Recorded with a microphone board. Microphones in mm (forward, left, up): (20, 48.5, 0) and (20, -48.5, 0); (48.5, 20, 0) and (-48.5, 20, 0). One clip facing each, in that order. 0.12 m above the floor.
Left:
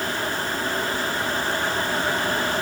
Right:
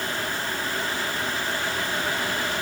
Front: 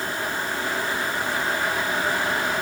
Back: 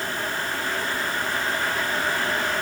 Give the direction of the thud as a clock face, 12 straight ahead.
I don't hear a thud.